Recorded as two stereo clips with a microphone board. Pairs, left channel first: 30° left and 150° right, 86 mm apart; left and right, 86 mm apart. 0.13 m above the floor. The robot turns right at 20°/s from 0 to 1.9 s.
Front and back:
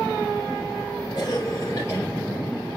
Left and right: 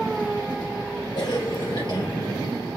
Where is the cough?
65° left, 3 m; by 2.1 s 80° left, 3 m.